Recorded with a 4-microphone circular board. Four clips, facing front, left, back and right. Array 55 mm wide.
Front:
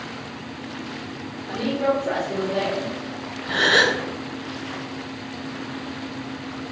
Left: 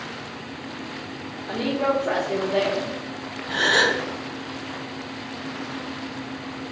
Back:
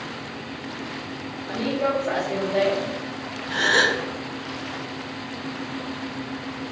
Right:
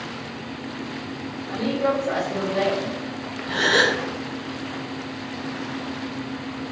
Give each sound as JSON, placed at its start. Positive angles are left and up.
{"t": 1.5, "sound": "a woman speaking", "azimuth_deg": 85, "distance_m": 1.3}
{"t": 3.5, "sound": "a gasp", "azimuth_deg": -5, "distance_m": 1.1}